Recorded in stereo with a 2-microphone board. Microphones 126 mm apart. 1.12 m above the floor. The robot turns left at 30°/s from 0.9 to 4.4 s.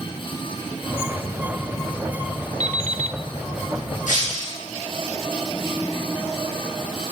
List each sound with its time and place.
2.6 s an alarm clock: 65° right (ahead or behind), 1.2 m; by 3.2 s 75° right (ahead or behind), 1.2 m
4.1 s breaking glass: 90° left, 8.5 m; by 4.6 s 80° left, 8.5 m